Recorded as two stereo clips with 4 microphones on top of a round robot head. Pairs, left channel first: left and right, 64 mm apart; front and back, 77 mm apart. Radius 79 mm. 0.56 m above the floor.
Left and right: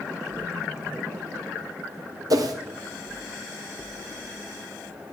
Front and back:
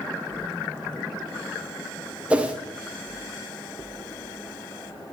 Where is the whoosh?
105° right, 1.7 m.